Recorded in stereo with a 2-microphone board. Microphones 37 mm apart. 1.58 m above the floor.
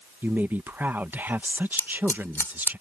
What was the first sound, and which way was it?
A woman speaking, 60° right (ahead or behind).